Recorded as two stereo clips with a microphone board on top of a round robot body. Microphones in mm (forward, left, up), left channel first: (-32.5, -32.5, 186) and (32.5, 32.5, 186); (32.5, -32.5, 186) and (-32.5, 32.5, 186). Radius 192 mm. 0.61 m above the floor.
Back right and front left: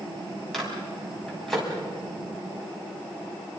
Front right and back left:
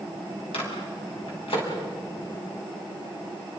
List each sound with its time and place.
0.5 s a microwave: 45° right, 6 m